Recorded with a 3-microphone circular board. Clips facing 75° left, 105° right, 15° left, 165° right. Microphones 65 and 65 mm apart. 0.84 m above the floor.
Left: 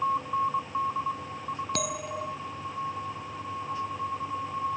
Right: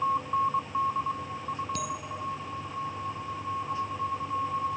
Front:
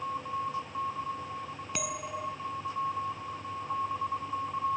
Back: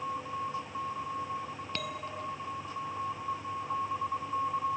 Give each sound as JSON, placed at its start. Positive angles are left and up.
{"t": 1.7, "sound": "a bell", "azimuth_deg": 90}